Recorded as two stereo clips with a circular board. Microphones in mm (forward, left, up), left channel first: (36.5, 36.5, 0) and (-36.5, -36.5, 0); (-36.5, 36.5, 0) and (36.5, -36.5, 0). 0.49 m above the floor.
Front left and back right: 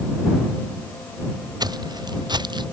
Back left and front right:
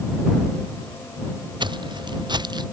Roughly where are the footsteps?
Right.